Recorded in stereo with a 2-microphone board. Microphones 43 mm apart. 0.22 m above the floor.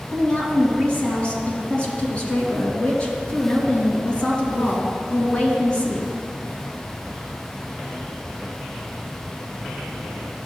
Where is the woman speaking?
25° left (ahead or behind), 2.5 m.